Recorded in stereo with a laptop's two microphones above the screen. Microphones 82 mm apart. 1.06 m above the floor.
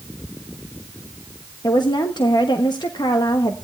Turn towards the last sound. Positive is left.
turn(degrees=60)  # may be behind; listen again after turning